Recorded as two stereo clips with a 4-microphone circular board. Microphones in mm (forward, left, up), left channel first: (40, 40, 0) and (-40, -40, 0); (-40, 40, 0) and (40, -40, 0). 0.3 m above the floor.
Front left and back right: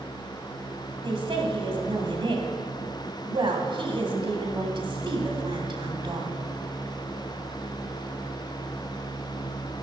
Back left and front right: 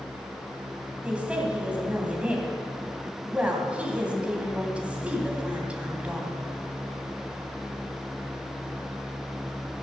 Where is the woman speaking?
120° right, 2 m.